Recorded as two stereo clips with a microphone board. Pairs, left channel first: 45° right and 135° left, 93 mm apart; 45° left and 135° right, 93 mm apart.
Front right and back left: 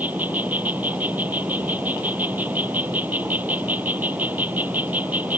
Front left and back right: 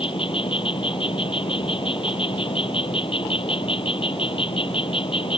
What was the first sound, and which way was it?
An insect, 65° left.